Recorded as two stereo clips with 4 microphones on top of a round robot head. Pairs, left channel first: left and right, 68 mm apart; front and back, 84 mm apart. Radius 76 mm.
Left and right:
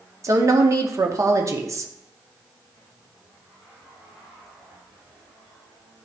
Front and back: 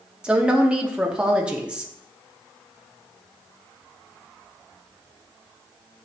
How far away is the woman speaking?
About 0.9 m.